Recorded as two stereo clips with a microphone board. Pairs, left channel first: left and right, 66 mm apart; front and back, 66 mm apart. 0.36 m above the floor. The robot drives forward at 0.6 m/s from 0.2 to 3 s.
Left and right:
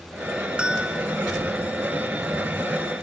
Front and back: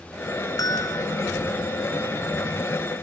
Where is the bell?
15° right, 2.5 m.